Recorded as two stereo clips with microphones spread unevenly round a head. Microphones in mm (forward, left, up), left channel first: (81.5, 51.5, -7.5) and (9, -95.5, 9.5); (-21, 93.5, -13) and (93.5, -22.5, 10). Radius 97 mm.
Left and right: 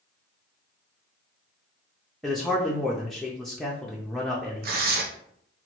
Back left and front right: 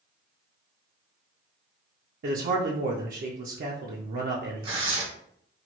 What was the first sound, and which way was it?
A man speaking, 25° right.